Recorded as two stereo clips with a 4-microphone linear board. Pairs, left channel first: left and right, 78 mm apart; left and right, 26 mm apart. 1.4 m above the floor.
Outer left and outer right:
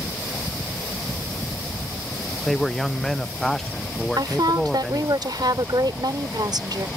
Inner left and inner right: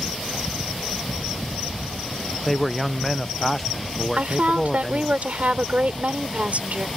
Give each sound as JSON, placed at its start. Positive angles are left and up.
{"t": 2.5, "sound": "a man speaking", "side_deg": 5}
{"t": 4.2, "sound": "a woman speaking", "side_deg": -65}